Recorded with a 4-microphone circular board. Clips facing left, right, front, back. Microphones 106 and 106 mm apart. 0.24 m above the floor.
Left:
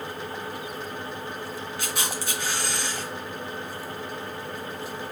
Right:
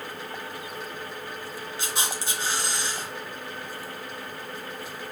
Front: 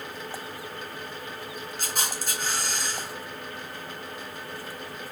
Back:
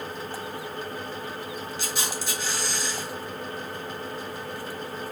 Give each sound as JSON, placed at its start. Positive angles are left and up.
{"t": 1.8, "sound": "a camera shutter", "azimuth_deg": -30, "distance_m": 1.8}